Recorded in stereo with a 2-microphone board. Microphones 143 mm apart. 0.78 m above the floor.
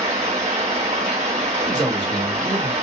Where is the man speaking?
60° right (ahead or behind), 1.6 m.